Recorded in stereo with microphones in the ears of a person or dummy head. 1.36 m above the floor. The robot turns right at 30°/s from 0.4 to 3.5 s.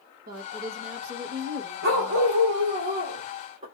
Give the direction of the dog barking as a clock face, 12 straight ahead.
4 o'clock.